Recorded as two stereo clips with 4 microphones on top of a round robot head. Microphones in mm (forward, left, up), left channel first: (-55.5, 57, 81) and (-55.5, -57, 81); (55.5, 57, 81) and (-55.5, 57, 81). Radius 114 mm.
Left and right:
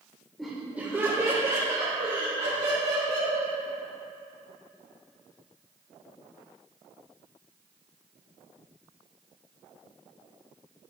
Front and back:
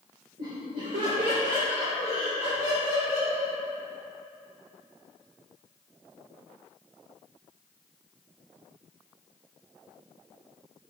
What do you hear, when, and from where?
0.4 s laughter: 175° left, 1.7 m; by 3.5 s 120° right, 4.5 m